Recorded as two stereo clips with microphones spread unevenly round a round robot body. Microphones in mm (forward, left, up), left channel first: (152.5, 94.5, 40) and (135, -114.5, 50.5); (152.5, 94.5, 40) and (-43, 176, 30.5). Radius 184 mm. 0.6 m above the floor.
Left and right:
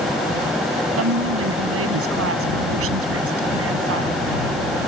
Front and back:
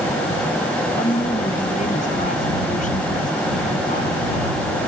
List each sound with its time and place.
1.0 s a woman speaking: 90° right